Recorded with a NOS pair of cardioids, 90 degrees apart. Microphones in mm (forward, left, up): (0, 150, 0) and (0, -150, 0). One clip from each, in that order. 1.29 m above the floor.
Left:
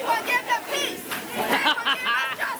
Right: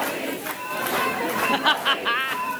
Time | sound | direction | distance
1.5 | laughter | 10° right | 0.9 m